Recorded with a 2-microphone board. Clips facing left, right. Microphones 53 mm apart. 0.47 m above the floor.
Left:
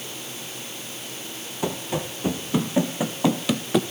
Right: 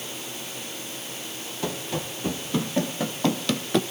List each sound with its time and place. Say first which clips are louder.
1.6 s running footsteps: left 3 dB; 20° left (ahead or behind), 3 m; by 3.8 s 5° left (ahead or behind), 1.3 m